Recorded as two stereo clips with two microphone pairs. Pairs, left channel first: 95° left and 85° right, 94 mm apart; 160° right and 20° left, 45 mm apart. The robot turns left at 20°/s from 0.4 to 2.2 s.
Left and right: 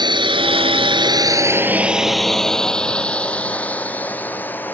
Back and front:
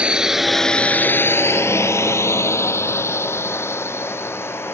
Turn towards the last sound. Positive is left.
turn(degrees=170)